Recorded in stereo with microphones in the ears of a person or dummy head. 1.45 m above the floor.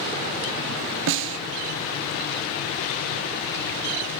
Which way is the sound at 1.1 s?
65° right (ahead or behind).